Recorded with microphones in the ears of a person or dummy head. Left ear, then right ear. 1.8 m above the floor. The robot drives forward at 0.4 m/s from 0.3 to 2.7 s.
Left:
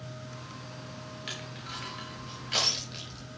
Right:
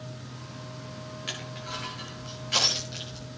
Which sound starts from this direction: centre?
Crushing, at 1.3 s.